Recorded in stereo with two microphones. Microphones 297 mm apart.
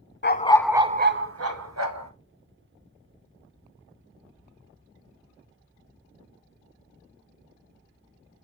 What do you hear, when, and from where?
0.2 s a dog barking: 40° left (ahead or behind), 0.6 m; by 2.1 s 65° right (ahead or behind), 1.5 m